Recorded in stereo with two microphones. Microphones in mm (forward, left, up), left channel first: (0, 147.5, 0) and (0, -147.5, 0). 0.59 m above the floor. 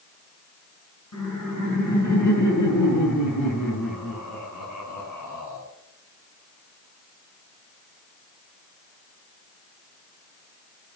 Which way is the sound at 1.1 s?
70° left (ahead or behind).